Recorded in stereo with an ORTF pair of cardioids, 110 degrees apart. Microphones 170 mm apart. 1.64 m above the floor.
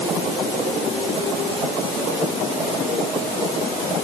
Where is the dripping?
I don't hear dripping.